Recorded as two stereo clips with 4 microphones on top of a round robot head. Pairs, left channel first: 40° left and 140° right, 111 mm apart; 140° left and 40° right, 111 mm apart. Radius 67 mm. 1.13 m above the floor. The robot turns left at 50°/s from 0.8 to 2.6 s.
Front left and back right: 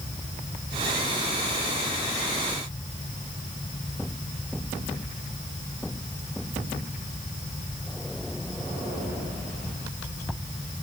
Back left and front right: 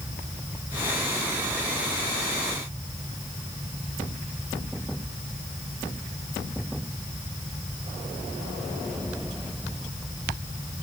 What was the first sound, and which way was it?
Only background noise.